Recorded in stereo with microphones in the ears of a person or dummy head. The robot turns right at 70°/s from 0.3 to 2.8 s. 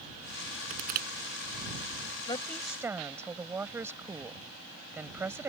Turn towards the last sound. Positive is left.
turn(degrees=-165)